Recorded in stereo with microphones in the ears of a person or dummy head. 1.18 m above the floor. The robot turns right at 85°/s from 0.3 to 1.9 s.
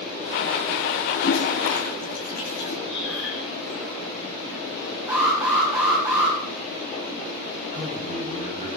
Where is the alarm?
20° right (ahead or behind), 8.5 m.